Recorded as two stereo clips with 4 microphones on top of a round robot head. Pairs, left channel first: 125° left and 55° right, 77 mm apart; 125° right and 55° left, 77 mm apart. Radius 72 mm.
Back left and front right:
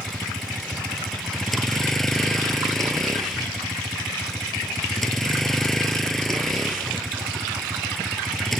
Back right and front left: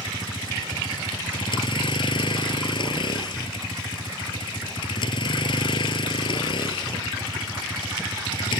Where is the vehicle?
150° right.